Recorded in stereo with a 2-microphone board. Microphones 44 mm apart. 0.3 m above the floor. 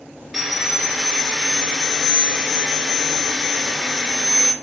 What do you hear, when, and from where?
0.3 s sawing: 5° right (ahead or behind), 0.6 m